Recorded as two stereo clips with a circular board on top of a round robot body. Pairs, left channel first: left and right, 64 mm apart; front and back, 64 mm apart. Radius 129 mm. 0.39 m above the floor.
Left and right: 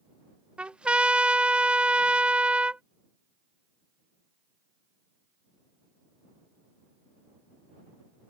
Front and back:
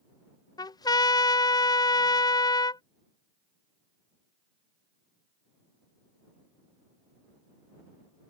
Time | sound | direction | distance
0.6 | a trumpet | 15° right | ?